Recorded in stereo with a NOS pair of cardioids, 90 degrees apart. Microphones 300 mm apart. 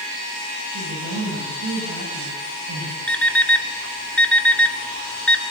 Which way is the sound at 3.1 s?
5° left.